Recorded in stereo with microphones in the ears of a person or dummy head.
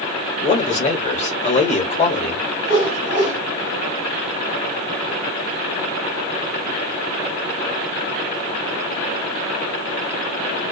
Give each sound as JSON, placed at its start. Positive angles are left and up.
{"t": 0.4, "sound": "a man speaking", "side_deg": 35, "distance_m": 1.0}
{"t": 2.6, "sound": "a whoosh", "side_deg": -50, "distance_m": 1.6}